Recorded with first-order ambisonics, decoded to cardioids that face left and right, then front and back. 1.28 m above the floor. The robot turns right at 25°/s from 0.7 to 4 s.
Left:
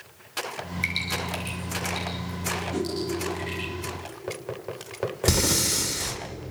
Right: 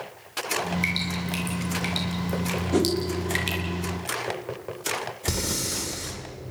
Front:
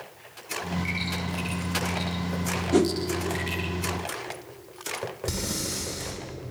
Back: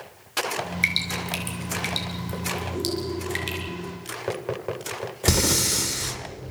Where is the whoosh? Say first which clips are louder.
Right 6 dB, front 12 dB; 25° right, 1.7 m; by 2.9 s 20° right, 1.7 m.